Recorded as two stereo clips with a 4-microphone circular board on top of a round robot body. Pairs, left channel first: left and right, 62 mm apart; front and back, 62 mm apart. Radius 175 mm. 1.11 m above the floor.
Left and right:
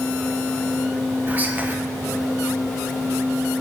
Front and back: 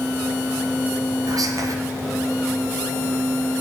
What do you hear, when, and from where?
1.3 s whispering: 155° right, 0.7 m